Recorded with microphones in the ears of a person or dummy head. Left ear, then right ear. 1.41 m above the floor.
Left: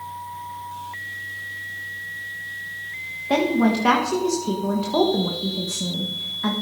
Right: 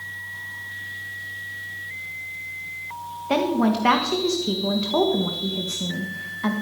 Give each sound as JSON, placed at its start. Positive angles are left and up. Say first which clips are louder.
{"t": 3.3, "sound": "a woman speaking", "louder": "left 1 dB", "side_deg": -5, "distance_m": 1.5}